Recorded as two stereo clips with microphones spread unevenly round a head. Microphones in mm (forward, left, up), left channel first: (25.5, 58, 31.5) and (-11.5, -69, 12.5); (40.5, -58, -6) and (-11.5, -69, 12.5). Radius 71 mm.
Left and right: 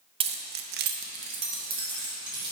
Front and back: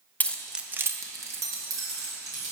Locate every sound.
0.2 s keys jangling: 50° right, 0.7 m; by 2.5 s 170° right, 2.5 m